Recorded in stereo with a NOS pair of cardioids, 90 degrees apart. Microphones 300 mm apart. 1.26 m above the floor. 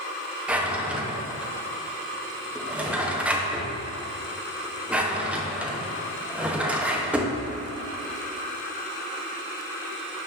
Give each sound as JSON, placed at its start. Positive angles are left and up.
{"t": 0.5, "sound": "a drawer", "azimuth_deg": -5, "distance_m": 0.9}